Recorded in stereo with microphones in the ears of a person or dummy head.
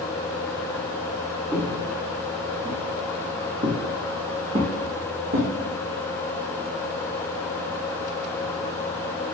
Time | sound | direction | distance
1.5 | footsteps | 10° right (ahead or behind) | 2.5 m